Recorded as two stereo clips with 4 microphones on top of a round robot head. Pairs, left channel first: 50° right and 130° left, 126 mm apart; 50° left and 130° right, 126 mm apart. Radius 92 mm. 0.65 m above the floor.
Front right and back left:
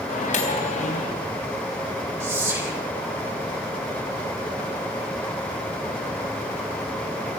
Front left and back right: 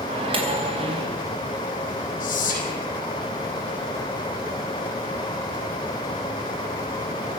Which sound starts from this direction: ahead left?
Whispering, at 2.2 s.